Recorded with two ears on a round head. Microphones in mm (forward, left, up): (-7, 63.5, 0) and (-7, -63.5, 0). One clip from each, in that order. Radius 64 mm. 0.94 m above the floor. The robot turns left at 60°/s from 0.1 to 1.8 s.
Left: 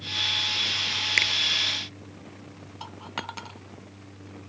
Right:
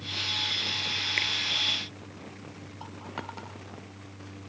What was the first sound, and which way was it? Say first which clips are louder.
A finger snap: left 7 dB; 70° left (ahead or behind).